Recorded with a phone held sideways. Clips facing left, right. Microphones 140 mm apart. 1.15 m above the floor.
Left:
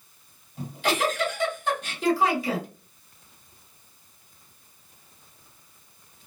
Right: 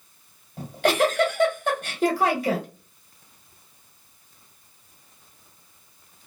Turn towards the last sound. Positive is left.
turn(degrees=-60)  # may be behind; listen again after turning